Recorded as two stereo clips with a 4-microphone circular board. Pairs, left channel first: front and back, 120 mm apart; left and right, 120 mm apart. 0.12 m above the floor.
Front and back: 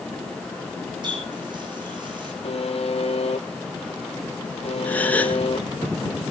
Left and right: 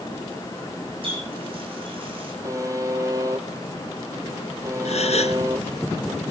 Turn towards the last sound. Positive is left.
turn(degrees=75)